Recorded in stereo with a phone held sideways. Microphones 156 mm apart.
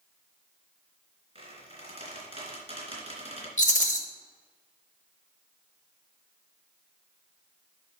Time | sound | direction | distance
1.4 | a squeak | 40° right (ahead or behind) | 3 m
3.6 | a rattle | 50° left (ahead or behind) | 1.1 m